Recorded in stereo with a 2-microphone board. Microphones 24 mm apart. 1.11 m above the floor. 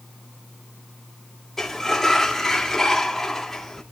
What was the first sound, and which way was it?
A sliding door, 15° left (ahead or behind).